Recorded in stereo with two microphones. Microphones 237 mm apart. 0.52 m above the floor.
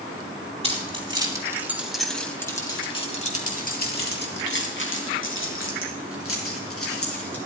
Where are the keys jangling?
25° right (ahead or behind), 3 m; by 7.4 s 75° left (ahead or behind), 5 m.